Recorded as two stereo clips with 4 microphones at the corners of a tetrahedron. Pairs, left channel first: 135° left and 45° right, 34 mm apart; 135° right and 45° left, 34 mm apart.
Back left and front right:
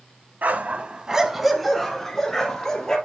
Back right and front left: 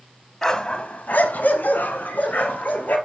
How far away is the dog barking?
About 1.1 m.